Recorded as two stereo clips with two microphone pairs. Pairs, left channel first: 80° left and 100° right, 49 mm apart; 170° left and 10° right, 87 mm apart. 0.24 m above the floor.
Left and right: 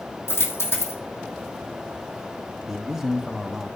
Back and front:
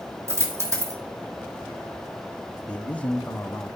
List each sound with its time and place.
0.3 s a dropped coin: 45° left, 2.5 m
2.7 s a man speaking: 160° right, 1.0 m